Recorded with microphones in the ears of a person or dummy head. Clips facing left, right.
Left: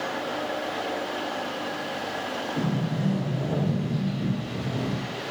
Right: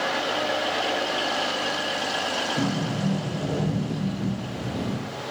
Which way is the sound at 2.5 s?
5° left (ahead or behind).